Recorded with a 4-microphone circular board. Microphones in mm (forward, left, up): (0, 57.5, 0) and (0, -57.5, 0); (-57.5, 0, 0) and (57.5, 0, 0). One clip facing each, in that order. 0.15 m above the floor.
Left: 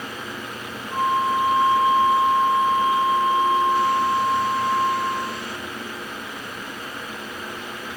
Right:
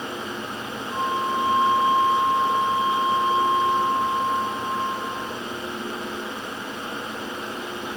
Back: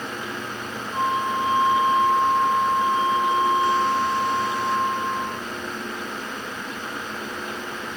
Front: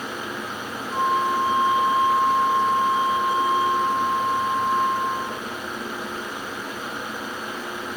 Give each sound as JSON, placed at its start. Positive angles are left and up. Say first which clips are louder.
{"t": 0.9, "sound": "a flute", "louder": "left 4 dB, front 2 dB", "azimuth_deg": -30, "distance_m": 4.5}